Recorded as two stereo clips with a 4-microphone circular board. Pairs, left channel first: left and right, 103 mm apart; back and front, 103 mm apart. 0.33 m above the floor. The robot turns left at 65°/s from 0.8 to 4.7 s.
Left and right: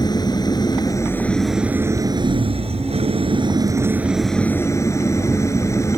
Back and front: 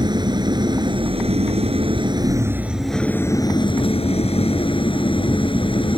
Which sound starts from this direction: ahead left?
An engine running, at 0.0 s.